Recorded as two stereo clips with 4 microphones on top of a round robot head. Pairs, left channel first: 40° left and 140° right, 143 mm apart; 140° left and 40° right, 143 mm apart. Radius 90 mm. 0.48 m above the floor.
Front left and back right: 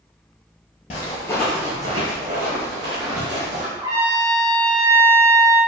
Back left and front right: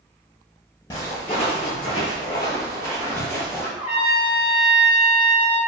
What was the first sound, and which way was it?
Footsteps, 80° left.